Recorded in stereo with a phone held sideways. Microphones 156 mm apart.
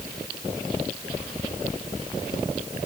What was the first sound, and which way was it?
Only background noise.